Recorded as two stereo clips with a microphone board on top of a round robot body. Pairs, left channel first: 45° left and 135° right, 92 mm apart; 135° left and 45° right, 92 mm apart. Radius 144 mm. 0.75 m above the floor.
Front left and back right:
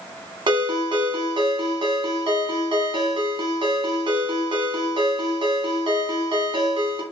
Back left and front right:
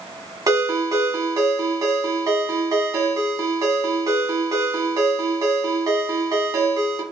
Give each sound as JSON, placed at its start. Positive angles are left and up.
{"t": 0.5, "sound": "a ringtone", "azimuth_deg": -95, "distance_m": 1.1}